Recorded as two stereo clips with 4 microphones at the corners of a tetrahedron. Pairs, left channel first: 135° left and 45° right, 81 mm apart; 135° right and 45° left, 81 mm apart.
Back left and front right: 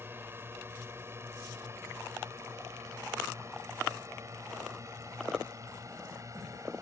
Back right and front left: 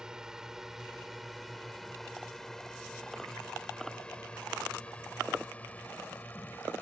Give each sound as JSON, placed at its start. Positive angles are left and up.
{"t": 0.0, "sound": "a drone", "azimuth_deg": -30}